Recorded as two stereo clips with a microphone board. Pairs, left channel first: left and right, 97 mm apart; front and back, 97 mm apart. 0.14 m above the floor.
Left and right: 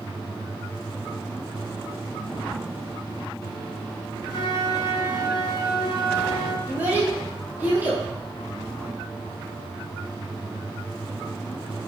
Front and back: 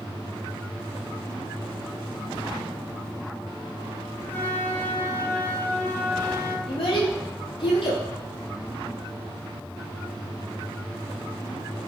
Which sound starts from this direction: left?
A flute, at 4.3 s.